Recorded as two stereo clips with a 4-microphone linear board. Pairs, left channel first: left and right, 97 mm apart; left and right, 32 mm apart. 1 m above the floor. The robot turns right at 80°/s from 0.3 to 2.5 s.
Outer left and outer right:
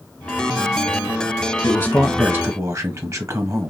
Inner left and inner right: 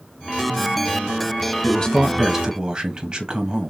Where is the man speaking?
145° left, 1.0 m; by 3.7 s 145° right, 1.0 m.